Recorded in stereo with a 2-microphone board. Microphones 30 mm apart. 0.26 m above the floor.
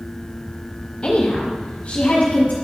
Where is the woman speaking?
35° left (ahead or behind), 1.1 m; by 2.5 s 45° left (ahead or behind), 1.8 m.